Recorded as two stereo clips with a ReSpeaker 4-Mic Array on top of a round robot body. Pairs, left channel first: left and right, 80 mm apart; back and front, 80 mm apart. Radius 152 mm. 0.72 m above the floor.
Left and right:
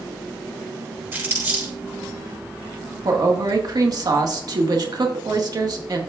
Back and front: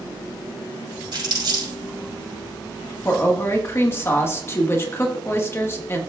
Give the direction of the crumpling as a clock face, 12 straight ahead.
1 o'clock.